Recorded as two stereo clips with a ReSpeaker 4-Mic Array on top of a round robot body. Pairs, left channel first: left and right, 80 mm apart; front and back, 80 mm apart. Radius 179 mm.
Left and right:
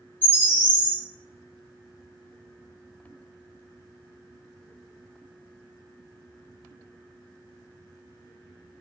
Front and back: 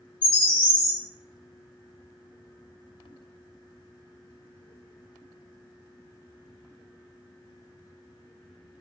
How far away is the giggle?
No giggle in this recording.